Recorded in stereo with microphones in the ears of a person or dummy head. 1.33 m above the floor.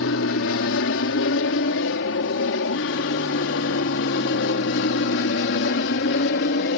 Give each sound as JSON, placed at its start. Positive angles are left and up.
{"t": 0.0, "sound": "an aircraft", "side_deg": 60}